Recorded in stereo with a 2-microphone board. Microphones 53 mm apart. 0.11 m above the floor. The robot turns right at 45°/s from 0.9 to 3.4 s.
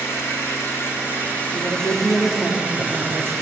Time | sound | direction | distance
0.0 | an engine running | 125° left | 7 m
1.5 | a woman speaking | 155° left | 6.5 m